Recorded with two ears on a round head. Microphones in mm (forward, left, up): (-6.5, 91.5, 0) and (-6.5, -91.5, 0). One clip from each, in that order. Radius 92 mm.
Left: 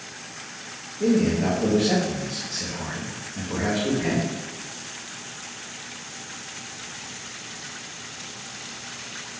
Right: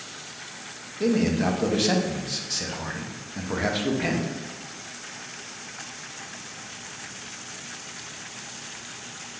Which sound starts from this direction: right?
A man speaking, at 1.0 s.